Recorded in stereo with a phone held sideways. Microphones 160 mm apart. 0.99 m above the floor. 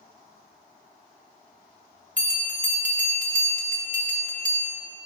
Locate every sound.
2.2 s a bell: 55° right (ahead or behind), 1.2 m